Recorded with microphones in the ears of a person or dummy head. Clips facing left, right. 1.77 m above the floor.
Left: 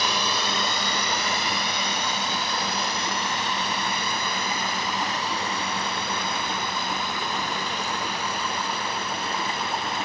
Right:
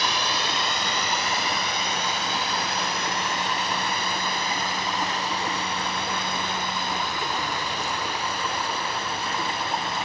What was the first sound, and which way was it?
A drone, 80° left.